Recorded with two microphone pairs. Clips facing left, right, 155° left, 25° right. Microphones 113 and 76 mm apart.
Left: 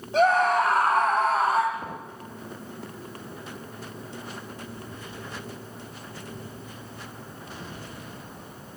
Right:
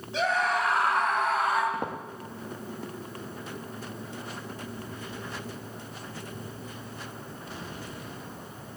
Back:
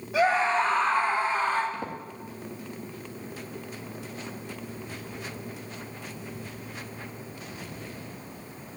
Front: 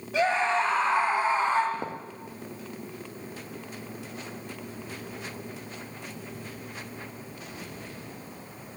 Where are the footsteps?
80° right, 3.5 m.